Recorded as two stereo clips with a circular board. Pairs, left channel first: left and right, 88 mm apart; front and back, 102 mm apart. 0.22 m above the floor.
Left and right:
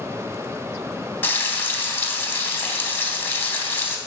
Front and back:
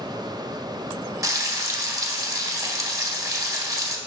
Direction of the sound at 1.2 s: 140° left.